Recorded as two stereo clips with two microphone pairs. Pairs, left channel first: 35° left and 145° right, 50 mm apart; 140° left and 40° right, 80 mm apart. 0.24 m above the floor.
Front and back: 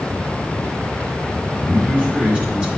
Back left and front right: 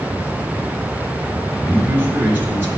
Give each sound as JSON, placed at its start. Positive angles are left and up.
{"t": 1.6, "sound": "a man speaking", "azimuth_deg": -90, "distance_m": 2.0}